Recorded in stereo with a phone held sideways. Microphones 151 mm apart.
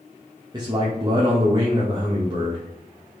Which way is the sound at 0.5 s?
30° right (ahead or behind).